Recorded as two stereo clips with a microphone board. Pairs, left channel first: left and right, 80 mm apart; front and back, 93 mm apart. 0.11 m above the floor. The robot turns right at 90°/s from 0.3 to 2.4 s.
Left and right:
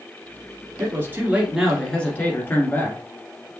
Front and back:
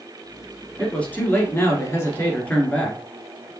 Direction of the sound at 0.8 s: 85° right.